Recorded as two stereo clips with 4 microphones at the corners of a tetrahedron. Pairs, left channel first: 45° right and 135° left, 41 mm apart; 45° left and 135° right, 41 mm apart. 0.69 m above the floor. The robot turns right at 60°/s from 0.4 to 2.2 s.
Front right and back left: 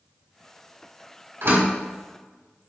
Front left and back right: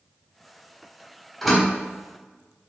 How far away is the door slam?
About 4 m.